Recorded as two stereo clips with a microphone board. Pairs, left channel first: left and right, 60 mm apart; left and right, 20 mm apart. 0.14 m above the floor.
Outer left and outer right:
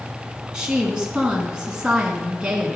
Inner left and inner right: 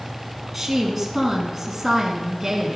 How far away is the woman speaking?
About 1.1 m.